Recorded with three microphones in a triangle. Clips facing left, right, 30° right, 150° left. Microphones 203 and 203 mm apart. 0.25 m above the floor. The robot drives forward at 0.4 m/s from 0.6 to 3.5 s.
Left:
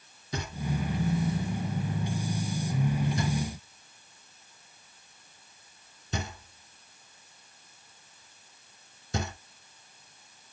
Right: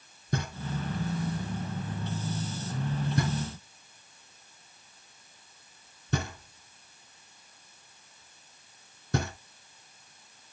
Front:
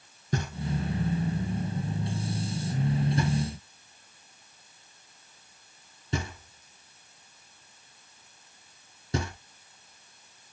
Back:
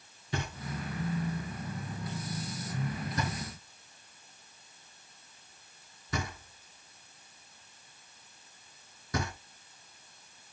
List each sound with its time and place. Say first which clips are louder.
0.3 s knocking: left 1 dB, front 6 dB; 70° right, 3.5 m; by 9.3 s 90° right, 3 m